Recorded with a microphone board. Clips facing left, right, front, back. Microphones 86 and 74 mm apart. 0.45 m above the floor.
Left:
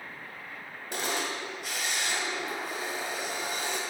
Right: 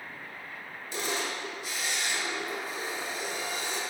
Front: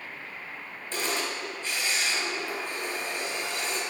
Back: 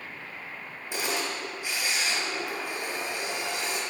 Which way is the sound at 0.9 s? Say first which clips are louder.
Left 1 dB, even; 105° left.